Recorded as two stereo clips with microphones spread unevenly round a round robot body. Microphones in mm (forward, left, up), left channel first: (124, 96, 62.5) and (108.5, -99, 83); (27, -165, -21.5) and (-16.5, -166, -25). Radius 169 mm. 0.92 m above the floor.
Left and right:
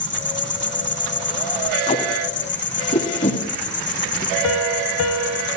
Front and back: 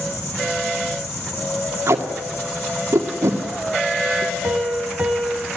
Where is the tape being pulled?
150° left, 1.8 m.